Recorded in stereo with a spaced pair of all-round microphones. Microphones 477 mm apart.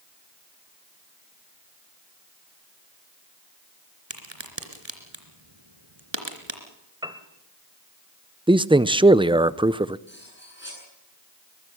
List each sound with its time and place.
4.1 s a crack: 70° right (ahead or behind), 3 m
7.0 s a piano: 10° right (ahead or behind), 1.4 m
8.5 s a man speaking: 10° right (ahead or behind), 0.5 m
10.1 s cutlery clinking: 25° left (ahead or behind), 9.5 m